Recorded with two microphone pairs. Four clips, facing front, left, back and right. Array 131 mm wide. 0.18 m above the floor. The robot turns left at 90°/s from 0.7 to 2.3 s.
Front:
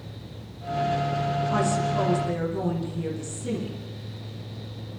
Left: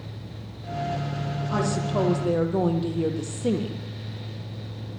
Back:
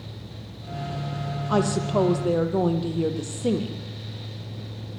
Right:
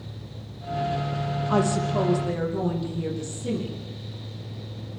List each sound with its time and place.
1.5 s a woman speaking: 140° right, 5.5 m; by 3.8 s 145° left, 5.5 m